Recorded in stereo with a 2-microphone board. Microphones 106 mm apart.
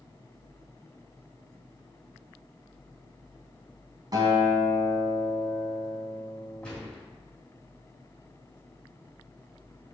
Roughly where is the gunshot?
Centre.